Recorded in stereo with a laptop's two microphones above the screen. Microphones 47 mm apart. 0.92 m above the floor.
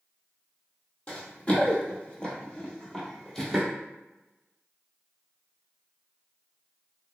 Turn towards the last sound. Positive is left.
turn(degrees=5)  # may be behind; listen again after turning